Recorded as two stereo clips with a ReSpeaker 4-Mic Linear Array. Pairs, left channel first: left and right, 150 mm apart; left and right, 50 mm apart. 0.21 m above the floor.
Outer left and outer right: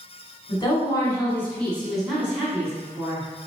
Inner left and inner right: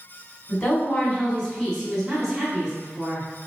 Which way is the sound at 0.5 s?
35° left (ahead or behind).